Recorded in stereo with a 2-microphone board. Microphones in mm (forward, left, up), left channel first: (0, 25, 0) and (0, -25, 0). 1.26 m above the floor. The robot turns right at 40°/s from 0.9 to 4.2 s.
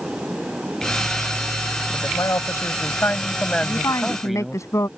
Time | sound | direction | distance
1.9 | a man speaking | 90° left | ?
3.6 | a woman speaking | 75° left (ahead or behind) | ?